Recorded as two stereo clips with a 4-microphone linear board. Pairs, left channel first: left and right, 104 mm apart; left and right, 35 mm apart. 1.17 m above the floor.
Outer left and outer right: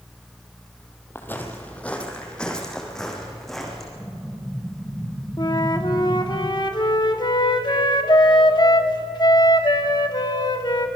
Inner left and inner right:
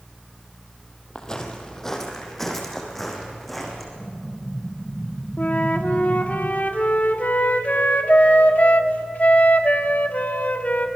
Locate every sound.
1.1 s footsteps: 20° left (ahead or behind), 2.5 m; by 3.9 s centre (ahead or behind), 5 m
4.0 s an explosion: 15° right (ahead or behind), 2 m
5.4 s a flute: 45° left (ahead or behind), 1.5 m